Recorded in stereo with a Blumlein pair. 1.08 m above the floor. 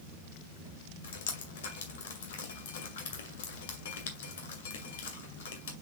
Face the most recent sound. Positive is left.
turn(degrees=60)